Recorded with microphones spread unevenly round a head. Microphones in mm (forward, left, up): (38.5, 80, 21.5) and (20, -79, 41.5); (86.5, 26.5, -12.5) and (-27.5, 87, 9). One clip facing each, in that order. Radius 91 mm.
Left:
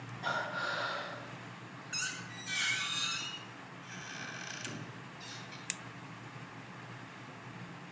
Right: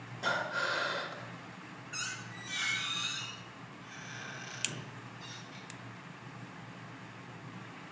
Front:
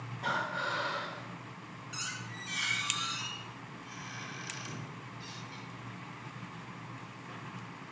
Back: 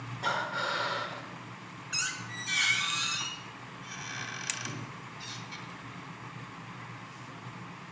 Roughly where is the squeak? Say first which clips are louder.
Even, back 5 dB; behind left.